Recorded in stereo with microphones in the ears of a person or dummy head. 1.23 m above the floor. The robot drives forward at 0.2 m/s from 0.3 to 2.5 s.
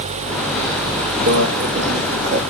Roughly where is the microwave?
Right.